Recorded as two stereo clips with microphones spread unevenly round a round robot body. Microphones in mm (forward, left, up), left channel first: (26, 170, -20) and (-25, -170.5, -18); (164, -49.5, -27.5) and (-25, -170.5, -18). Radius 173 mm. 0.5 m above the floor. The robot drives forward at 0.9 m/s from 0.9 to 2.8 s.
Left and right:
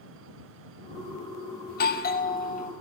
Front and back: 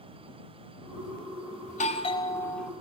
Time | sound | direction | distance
1.7 | a doorbell | 40° left | 1.5 m